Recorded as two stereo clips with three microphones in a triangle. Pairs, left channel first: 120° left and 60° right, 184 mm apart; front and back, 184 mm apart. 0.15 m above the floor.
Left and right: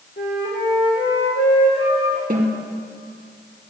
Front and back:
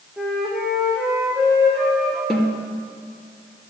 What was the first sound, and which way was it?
A flute, 85° left.